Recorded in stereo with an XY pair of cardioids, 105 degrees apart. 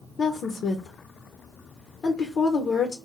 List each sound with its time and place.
0.2 s a woman speaking: 50° left, 0.6 m